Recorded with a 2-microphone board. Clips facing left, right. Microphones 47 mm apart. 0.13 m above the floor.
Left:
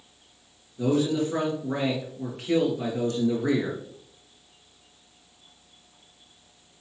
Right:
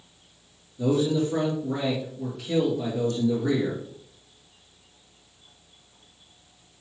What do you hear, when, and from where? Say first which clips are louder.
0.8 s a man speaking: right 1 dB; 55° left (ahead or behind), 2.5 m